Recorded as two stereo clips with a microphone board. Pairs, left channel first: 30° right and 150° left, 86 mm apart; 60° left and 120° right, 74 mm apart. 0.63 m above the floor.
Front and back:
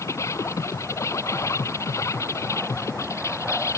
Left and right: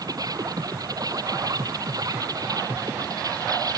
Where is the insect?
85° right.